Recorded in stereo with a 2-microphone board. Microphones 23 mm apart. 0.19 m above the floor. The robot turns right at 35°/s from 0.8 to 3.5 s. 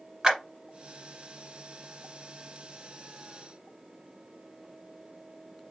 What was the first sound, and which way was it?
A clap, 25° right (ahead or behind).